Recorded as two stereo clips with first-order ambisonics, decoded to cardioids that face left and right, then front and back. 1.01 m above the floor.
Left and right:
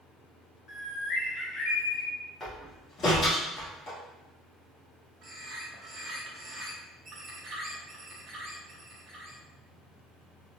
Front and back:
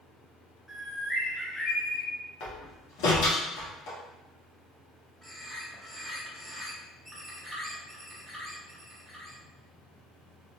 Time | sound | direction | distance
0.7 | a bird | 70° left | 0.7 m
2.4 | a door slam | 25° left | 1.0 m
5.2 | a bird | 110° right | 0.6 m